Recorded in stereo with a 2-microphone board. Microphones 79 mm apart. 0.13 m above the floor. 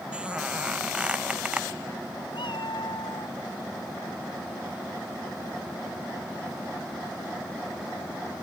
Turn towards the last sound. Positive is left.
turn(degrees=75)  # may be behind; listen again after turning